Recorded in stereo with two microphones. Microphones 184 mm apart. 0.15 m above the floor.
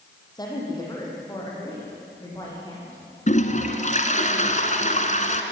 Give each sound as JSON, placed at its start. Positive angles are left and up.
{"t": 0.3, "sound": "a woman speaking", "side_deg": 20, "distance_m": 4.5}
{"t": 3.3, "sound": "a toilet flushing", "side_deg": 40, "distance_m": 1.5}